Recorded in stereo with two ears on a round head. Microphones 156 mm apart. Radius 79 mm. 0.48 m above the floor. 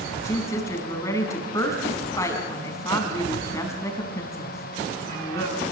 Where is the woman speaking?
15° left (ahead or behind), 5 m.